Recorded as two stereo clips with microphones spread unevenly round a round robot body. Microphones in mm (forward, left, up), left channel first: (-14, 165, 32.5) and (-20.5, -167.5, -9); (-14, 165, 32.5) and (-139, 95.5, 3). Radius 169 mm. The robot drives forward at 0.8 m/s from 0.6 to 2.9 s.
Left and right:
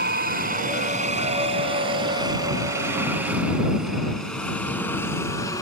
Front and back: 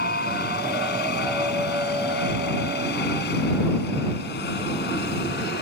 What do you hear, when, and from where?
0.0 s a helicopter: 25° right; by 5.6 s 10° left